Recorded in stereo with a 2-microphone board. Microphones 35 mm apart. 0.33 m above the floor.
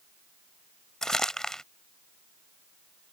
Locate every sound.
1.0 s crumpling: 20° left (ahead or behind)